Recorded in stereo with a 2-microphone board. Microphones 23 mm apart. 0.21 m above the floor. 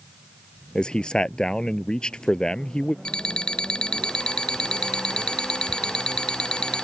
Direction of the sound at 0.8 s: 40° left (ahead or behind).